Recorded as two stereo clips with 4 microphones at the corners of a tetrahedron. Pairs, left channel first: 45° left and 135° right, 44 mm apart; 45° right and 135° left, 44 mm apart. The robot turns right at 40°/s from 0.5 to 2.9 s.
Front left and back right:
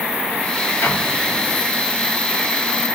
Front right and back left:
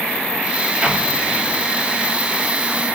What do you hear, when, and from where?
0.8 s an explosion: 60° left, 1.5 m; by 1.6 s 90° left, 1.5 m